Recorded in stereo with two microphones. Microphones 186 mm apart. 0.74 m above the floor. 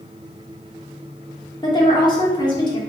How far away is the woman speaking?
About 1.3 m.